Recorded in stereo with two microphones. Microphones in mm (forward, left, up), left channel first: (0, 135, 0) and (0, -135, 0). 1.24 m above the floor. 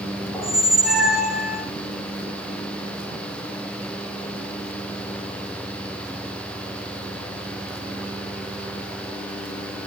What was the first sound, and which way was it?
A squeak, centre (ahead or behind).